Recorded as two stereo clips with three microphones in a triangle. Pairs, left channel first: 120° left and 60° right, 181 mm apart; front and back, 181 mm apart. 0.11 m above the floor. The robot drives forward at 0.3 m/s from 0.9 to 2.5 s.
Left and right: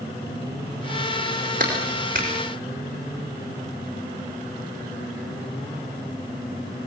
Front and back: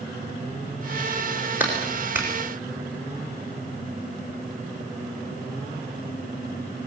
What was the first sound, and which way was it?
A clap, 100° right.